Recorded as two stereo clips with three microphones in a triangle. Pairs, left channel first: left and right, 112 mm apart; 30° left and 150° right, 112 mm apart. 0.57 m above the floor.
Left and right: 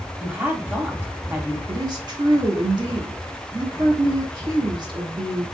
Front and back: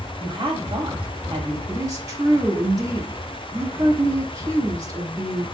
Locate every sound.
0.2 s a woman speaking: 160° right, 1.0 m
1.7 s a woman speaking: 105° right, 0.9 m